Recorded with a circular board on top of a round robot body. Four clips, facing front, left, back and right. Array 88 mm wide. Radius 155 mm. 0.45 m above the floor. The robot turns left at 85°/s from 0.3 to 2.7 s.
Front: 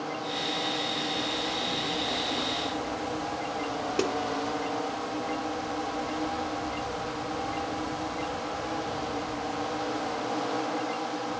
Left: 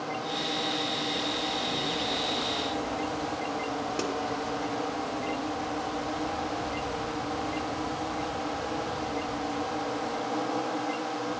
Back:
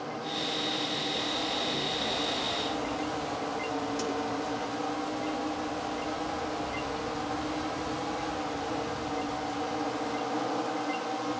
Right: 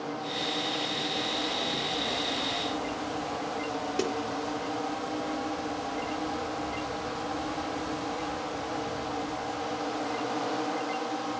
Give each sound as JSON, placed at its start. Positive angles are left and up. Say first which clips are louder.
{"t": 4.0, "sound": "a snare drum", "louder": "right 4 dB, front 5 dB", "azimuth_deg": 5, "distance_m": 1.8}